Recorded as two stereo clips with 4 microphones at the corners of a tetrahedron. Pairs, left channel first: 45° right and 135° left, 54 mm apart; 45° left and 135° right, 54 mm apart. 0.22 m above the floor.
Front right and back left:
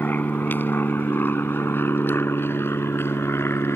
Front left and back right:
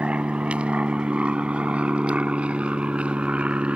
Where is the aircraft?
80° right; by 3.8 s 70° right.